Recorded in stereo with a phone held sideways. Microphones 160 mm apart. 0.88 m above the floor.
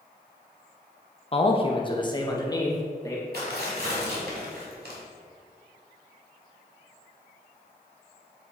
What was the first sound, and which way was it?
A man speaking, 35° left (ahead or behind).